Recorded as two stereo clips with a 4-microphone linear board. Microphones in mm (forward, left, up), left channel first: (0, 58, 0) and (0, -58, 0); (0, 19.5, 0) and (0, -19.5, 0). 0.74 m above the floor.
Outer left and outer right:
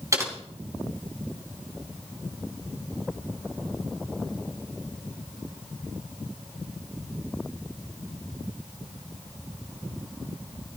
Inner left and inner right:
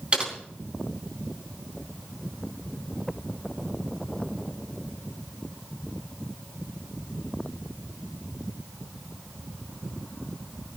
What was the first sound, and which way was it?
Typing on a keyboard, 30° right (ahead or behind).